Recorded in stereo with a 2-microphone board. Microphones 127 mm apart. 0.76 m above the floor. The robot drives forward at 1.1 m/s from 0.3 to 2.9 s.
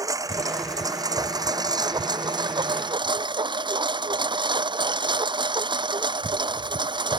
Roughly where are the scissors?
I don't hear scissors.